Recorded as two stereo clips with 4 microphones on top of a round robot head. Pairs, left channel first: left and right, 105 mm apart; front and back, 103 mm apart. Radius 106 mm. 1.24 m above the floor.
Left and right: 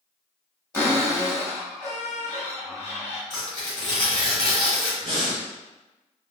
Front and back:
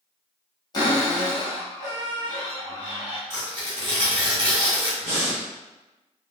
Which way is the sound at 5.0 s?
150° right.